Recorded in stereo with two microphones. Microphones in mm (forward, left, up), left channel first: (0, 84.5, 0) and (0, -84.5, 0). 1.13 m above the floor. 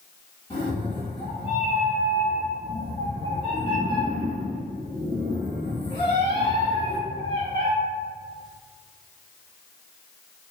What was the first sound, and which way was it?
A cat meowing, 30° left (ahead or behind).